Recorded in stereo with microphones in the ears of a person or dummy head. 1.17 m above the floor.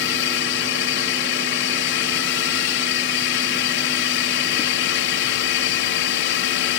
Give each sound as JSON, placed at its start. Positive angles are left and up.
{"t": 0.0, "sound": "a drone", "side_deg": 55}